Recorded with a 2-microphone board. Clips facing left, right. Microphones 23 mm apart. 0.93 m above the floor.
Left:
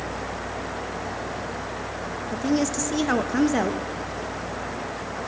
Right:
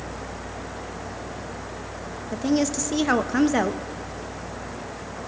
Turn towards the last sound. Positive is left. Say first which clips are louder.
# right 1 dB
turn(degrees=-10)  # may be behind; listen again after turning